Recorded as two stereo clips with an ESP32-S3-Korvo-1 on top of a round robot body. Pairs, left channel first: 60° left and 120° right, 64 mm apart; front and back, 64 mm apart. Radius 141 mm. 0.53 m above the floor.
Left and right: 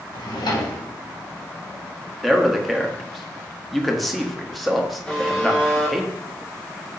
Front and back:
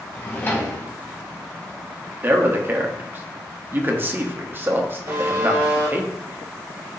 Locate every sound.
0.1 s a drawer: 60° left, 1.3 m
2.2 s a man speaking: 150° left, 1.3 m
5.1 s a buzzer: 145° left, 3.5 m